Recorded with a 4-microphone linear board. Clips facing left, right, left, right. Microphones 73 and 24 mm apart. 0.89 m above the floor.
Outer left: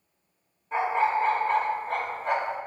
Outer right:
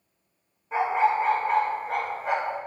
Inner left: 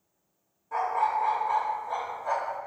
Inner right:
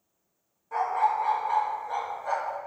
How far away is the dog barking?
About 0.8 m.